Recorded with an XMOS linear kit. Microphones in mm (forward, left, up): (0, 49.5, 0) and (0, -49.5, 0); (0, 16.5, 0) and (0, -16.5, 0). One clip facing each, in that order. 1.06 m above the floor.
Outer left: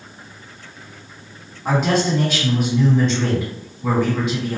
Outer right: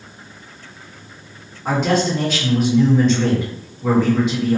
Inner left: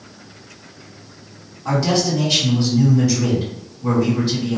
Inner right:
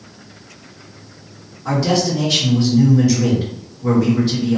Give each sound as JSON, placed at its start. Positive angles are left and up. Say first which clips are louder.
{"t": 1.6, "sound": "a man speaking", "louder": "even, inner right 1 dB", "side_deg": 5, "distance_m": 1.9}